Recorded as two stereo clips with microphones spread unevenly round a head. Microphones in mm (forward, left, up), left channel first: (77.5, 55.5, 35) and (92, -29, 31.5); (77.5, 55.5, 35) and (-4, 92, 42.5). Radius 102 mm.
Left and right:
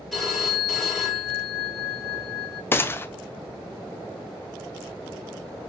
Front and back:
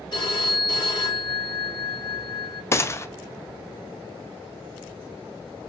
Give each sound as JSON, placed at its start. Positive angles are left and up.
{"t": 0.1, "sound": "a phone ringing", "azimuth_deg": 10, "distance_m": 1.8}
{"t": 2.7, "sound": "a gunshot", "azimuth_deg": 35, "distance_m": 0.5}